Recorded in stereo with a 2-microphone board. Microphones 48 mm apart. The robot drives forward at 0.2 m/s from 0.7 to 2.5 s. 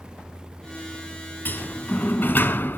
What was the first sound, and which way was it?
A sliding door, 40° left (ahead or behind).